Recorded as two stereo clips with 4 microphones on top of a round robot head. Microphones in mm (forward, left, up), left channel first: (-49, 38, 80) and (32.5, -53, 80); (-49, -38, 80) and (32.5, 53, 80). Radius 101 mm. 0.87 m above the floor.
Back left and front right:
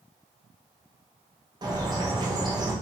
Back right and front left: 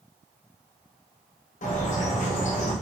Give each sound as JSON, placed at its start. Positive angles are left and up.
{"t": 1.6, "sound": "a bird", "azimuth_deg": -105, "distance_m": 2.5}